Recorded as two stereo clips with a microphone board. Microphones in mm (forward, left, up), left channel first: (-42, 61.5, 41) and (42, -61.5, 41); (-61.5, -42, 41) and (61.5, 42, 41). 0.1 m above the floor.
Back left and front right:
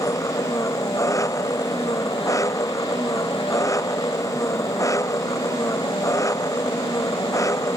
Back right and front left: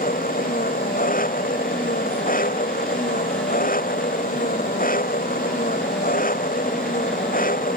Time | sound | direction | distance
0.0 | an engine running | 165° right | ?